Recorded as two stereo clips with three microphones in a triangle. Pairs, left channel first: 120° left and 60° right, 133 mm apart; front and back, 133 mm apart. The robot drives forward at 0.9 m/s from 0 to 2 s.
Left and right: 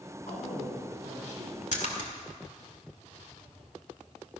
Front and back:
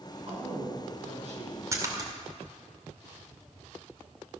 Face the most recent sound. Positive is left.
turn(degrees=125)